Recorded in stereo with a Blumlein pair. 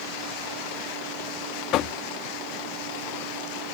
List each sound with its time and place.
1.7 s knocking: 35° left